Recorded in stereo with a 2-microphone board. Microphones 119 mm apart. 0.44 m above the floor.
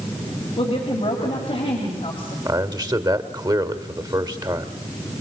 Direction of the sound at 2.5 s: 35° right (ahead or behind).